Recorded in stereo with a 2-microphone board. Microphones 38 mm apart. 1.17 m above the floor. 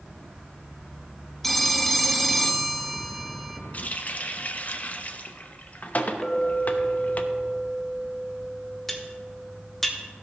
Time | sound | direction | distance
1.4 | a phone ringing | 5° left (ahead or behind) | 0.6 m
3.7 | a running tap | 40° left (ahead or behind) | 0.7 m
6.2 | a clink | 10° left (ahead or behind) | 0.8 m
8.9 | cutlery clinking | 5° left (ahead or behind) | 1.1 m